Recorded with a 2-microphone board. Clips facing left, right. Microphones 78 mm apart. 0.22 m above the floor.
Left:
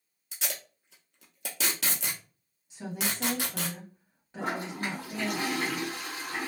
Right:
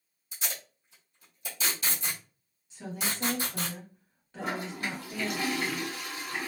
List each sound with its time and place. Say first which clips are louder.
0.3 s tape being pulled: left 1 dB; 75° left (ahead or behind), 1.1 m
2.7 s a woman speaking: left 1 dB; 20° left (ahead or behind), 1.3 m
4.4 s a toilet flushing: left 1 dB; 40° left (ahead or behind), 2.0 m